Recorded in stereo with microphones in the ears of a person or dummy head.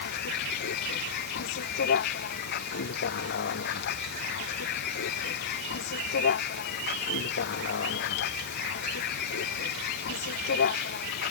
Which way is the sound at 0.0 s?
55° left (ahead or behind).